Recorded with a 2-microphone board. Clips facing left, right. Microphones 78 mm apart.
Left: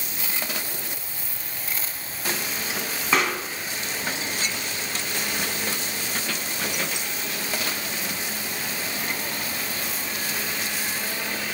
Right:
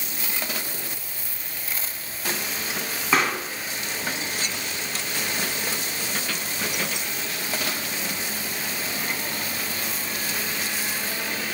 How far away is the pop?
About 3 m.